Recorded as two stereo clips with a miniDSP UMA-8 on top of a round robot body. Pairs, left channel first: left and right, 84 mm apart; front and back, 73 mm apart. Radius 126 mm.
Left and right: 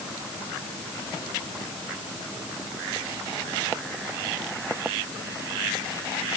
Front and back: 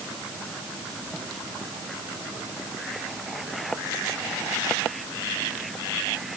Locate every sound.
Only background noise.